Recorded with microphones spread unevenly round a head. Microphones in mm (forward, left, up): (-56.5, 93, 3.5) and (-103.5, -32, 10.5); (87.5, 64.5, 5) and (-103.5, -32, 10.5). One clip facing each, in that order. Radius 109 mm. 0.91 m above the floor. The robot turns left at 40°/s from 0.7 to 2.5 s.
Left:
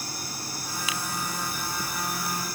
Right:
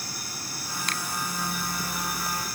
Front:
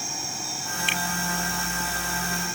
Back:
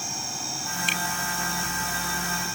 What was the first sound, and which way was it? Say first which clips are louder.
A finger snap: left 1 dB, front 2 dB; 155° left.